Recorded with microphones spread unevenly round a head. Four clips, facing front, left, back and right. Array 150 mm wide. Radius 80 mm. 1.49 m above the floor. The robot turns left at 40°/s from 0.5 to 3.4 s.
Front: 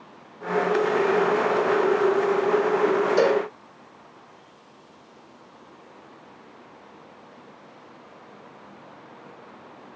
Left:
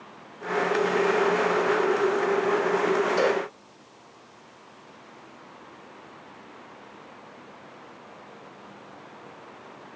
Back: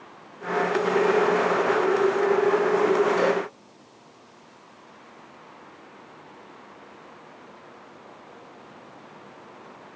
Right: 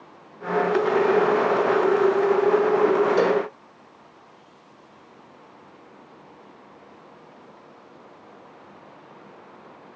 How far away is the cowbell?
About 3 m.